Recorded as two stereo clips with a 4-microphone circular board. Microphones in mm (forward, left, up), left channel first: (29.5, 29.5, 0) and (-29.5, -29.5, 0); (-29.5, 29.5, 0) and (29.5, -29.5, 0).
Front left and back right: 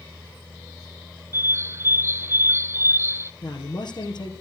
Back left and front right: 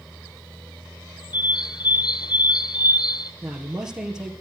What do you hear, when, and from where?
1.3 s a bird: 165° left, 0.6 m
3.4 s a man speaking: 40° left, 2.5 m